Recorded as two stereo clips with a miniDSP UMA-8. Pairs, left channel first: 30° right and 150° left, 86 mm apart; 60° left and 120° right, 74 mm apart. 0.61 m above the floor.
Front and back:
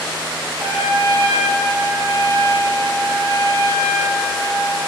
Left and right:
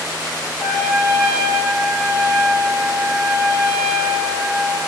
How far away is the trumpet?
About 1.7 m.